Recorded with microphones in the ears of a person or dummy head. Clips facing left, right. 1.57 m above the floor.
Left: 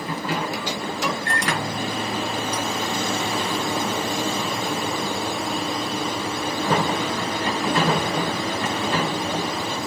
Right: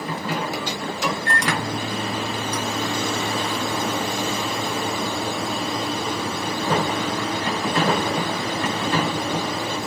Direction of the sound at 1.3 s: 75° right (ahead or behind).